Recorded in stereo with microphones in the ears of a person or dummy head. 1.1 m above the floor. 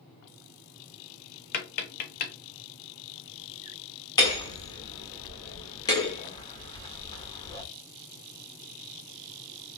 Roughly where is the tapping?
Left.